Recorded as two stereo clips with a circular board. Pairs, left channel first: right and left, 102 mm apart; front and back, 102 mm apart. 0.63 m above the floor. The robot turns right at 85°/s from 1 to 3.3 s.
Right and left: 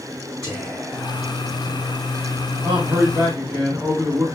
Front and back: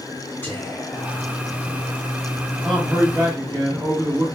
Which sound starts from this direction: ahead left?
Whispering, at 0.4 s.